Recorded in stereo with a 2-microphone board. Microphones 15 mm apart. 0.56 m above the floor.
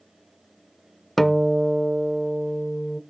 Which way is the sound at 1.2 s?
10° left (ahead or behind).